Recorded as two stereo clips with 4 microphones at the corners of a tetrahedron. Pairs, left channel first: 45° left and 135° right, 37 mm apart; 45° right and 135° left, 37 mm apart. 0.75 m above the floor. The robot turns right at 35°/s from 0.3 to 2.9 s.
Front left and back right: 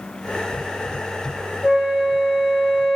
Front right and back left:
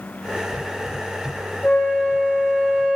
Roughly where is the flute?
Ahead right.